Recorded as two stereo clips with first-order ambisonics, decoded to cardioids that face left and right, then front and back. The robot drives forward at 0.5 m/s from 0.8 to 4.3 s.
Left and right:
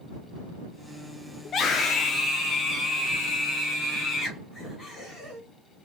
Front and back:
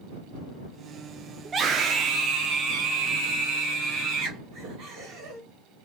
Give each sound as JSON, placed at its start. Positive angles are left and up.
{"t": 1.4, "sound": "a scream", "azimuth_deg": 125, "distance_m": 0.7}